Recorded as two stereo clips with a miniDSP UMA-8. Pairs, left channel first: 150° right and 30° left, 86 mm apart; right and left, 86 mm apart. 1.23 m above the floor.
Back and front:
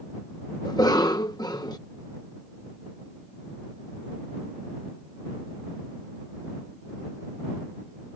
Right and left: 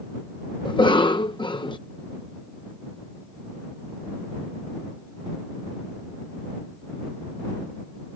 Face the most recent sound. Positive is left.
turn(degrees=-110)